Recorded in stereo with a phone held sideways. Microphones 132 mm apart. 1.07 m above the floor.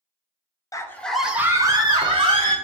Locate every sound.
0.7 s a scream: 25° left (ahead or behind), 0.5 m; by 2.5 s 50° right (ahead or behind), 0.9 m